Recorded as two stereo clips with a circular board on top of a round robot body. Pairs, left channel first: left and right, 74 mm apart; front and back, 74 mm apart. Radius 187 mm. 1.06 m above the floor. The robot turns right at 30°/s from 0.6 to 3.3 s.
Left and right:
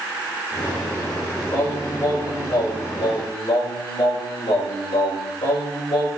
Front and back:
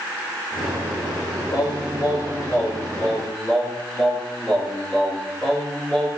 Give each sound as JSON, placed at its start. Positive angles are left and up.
{"t": 1.5, "sound": "singing", "azimuth_deg": 25, "distance_m": 5.0}